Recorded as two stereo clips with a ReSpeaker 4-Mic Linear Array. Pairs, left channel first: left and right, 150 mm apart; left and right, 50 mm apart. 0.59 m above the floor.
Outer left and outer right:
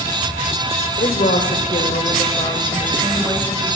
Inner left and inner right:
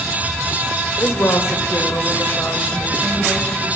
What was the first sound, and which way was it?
A woman speaking, 70° left (ahead or behind).